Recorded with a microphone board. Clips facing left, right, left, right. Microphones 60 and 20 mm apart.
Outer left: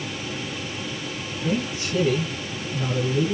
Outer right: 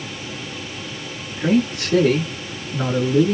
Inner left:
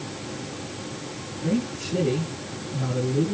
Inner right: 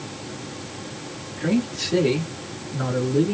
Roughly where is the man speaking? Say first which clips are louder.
Outer right 8 dB, inner right 4 dB; right.